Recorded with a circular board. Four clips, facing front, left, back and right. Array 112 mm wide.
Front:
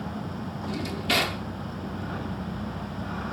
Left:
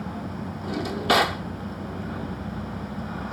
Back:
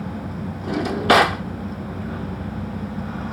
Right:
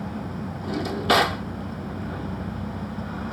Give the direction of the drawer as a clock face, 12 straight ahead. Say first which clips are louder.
Right 1 dB, back 13 dB; 6 o'clock.